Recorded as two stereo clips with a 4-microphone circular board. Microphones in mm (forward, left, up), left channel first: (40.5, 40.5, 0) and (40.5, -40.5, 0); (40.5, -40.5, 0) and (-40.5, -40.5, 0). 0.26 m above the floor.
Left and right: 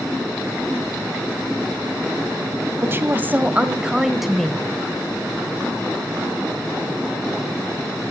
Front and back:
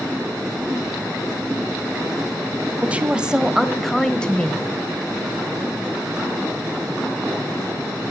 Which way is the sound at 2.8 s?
125° right.